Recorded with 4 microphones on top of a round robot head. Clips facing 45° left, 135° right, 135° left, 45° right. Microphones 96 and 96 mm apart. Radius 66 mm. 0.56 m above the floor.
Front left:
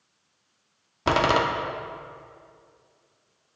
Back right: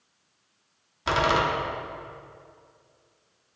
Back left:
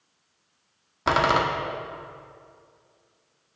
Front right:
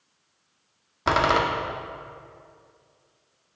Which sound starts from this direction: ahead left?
A door slam, at 1.1 s.